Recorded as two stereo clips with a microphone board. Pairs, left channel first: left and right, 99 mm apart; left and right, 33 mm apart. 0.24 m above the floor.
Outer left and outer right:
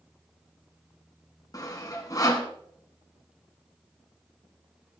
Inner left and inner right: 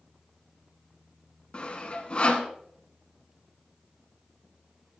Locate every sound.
1.5 s sawing: 35° left (ahead or behind), 1.8 m